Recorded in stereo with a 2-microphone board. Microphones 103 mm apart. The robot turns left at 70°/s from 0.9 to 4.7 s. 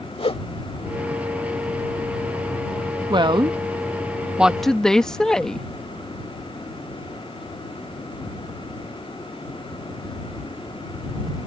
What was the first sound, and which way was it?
A whoosh, 65° left (ahead or behind).